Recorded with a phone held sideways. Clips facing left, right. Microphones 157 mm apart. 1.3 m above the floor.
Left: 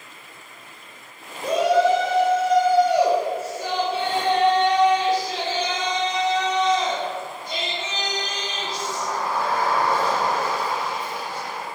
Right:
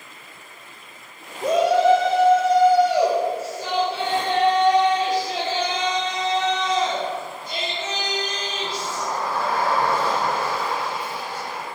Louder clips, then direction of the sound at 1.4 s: Right 1 dB; 45° right (ahead or behind).